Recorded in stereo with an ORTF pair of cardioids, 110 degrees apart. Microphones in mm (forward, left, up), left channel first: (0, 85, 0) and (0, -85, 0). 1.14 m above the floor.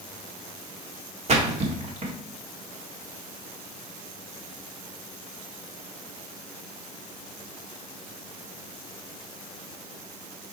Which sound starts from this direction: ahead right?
A splash, at 1.3 s.